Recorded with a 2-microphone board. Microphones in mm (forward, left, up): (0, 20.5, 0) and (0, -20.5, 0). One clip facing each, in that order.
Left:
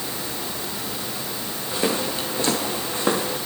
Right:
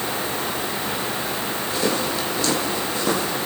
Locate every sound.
1.7 s footsteps: 20° left (ahead or behind), 6 m; by 3.4 s 30° left (ahead or behind), 7.5 m